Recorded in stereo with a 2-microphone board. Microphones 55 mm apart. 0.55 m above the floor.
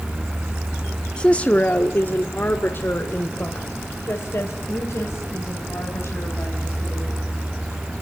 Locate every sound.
1.2 s a woman speaking: 20° left (ahead or behind), 0.8 m; by 7.2 s 55° left (ahead or behind), 4 m